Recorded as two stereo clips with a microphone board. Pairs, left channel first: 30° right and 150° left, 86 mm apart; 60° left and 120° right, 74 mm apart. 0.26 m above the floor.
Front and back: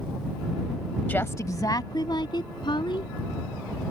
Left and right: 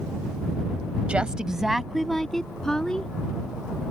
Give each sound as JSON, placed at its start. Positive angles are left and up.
{"t": 1.1, "sound": "a woman speaking", "azimuth_deg": -70}